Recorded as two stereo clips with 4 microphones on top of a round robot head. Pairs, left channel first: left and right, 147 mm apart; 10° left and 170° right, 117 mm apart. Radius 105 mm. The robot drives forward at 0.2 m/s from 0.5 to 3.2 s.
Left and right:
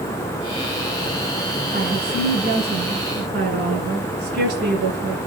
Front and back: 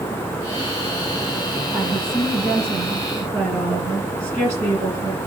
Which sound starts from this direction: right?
A woman speaking, at 1.7 s.